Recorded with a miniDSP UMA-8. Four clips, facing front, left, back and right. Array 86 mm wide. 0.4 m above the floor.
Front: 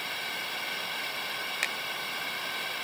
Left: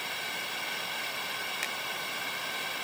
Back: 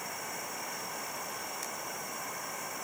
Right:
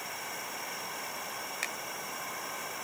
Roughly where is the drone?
Ahead left.